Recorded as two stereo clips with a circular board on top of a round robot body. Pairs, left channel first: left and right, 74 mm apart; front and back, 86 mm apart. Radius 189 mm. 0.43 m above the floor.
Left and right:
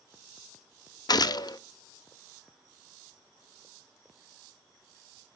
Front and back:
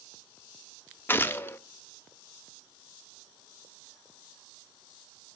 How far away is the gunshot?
About 1.2 m.